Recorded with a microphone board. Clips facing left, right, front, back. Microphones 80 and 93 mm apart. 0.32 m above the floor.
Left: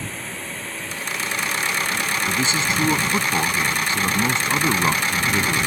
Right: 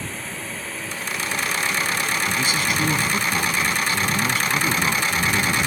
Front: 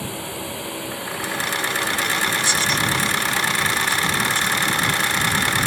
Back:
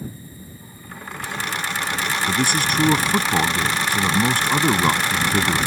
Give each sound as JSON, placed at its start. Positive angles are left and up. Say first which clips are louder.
{"t": 0.0, "sound": "a drone", "louder": "even, front 7 dB", "azimuth_deg": 0}
{"t": 2.3, "sound": "a man speaking", "louder": "left 1 dB, back 1 dB", "azimuth_deg": 150}